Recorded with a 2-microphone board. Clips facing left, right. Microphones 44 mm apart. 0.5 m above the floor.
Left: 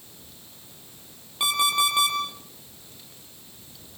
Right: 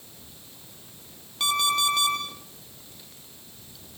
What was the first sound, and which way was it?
An alarm clock, 10° left (ahead or behind).